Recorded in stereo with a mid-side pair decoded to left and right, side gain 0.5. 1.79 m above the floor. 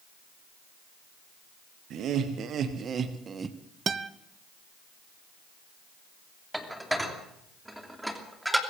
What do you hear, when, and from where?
1.9 s laughter: 65° right, 2 m; by 3.6 s 30° right, 1.3 m
3.9 s a guitar: 40° right, 1.0 m
6.5 s dishes clattering: 5° right, 3 m